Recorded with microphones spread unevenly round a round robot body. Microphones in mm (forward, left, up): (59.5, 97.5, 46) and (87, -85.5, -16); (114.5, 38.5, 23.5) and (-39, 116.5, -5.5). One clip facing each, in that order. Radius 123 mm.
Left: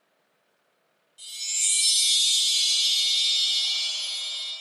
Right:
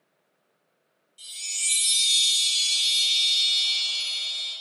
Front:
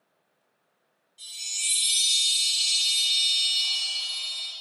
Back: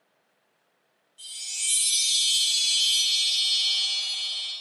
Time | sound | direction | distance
1.2 | a chime | 115° right | 0.9 m